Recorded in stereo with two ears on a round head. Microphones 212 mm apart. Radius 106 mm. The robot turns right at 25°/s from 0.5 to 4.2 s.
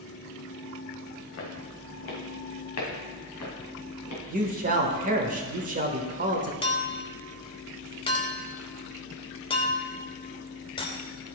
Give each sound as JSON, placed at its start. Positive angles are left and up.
{"t": 1.4, "sound": "footsteps", "side_deg": 55, "distance_m": 2.5}
{"t": 4.3, "sound": "a man speaking", "side_deg": -35, "distance_m": 1.2}
{"t": 6.6, "sound": "a clink", "side_deg": 20, "distance_m": 0.9}